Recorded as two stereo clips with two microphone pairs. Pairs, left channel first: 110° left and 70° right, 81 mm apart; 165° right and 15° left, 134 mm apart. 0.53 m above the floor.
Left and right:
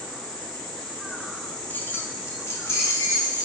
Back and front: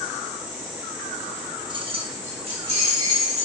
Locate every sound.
1.7 s keys jangling: 50° left, 0.7 m; by 3.5 s 55° left, 3 m